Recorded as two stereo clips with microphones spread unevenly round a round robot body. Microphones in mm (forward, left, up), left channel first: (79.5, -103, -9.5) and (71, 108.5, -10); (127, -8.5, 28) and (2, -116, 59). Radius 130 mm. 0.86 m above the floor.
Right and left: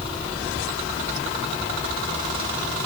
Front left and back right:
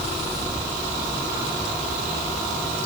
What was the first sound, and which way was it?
Only background noise.